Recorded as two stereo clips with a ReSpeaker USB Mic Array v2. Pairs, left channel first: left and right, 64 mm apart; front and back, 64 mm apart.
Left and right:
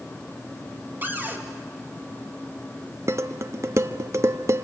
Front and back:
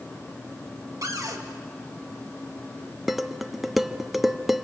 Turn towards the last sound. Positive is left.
turn(degrees=-95)